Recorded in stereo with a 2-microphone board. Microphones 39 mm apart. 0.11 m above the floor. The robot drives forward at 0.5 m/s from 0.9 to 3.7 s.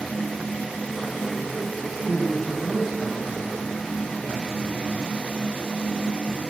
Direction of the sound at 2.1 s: 5° left (ahead or behind).